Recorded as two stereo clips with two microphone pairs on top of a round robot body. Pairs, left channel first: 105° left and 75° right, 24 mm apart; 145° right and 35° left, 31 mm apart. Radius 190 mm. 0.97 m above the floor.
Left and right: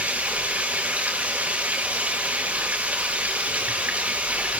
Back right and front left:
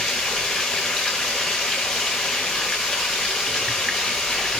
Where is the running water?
65° right, 0.8 m.